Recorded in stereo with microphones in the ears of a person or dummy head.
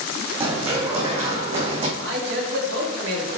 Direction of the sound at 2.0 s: 75° right (ahead or behind).